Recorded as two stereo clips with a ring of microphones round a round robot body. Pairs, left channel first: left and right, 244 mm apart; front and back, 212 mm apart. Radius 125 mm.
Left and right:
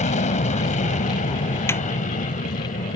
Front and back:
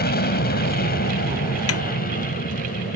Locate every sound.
0.0 s an aircraft: 30° left; by 3.0 s 35° left
1.7 s a snare drum: 10° left